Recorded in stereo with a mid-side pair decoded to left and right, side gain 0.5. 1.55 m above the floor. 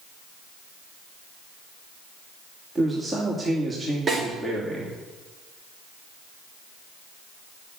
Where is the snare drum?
40° right, 6 m.